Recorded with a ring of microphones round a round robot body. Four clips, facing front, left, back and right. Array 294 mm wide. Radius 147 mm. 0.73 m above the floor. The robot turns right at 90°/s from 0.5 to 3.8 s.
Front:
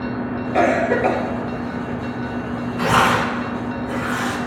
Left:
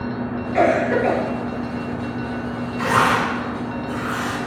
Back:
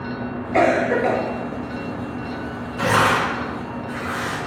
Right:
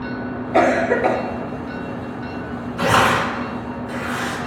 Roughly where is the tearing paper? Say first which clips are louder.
Right 2 dB, front 1 dB; right.